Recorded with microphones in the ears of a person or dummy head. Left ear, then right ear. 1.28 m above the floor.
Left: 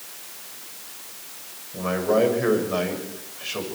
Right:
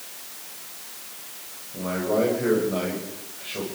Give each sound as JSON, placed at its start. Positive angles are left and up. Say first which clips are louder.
{"t": 1.7, "sound": "a man speaking", "louder": "left 3 dB", "side_deg": 70, "distance_m": 7.5}